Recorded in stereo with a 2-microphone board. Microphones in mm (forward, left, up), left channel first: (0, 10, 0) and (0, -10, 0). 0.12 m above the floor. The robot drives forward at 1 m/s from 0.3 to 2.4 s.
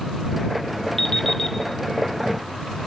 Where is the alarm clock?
30° left (ahead or behind), 2.5 m; by 1.6 s 25° left (ahead or behind), 3 m.